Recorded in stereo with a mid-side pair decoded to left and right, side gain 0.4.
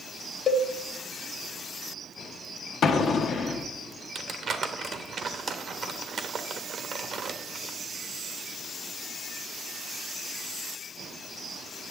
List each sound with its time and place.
0.5 s a cowbell: 50° left, 0.7 m
2.8 s an explosion: 70° left, 0.9 m
4.2 s crumpling: 55° right, 1.1 m